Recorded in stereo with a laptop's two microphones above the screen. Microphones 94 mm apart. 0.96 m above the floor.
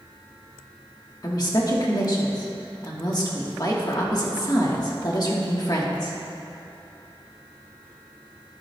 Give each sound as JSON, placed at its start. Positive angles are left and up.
{"t": 1.2, "sound": "a woman speaking", "side_deg": 45, "distance_m": 1.5}